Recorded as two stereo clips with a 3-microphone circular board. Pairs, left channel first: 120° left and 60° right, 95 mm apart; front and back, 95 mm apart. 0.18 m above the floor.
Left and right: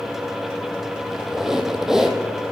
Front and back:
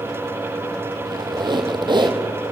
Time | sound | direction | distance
1.1 | a squeak | 145° right | 1.3 m